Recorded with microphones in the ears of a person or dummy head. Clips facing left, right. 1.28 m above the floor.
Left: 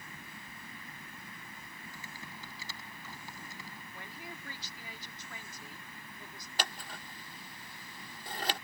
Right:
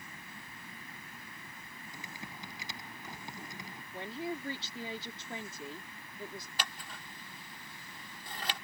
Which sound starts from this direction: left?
Scissors, at 6.6 s.